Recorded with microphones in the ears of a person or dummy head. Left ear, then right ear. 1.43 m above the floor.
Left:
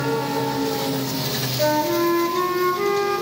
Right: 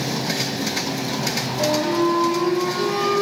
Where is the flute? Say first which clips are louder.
Left 1 dB; 45° left (ahead or behind), 1.1 m.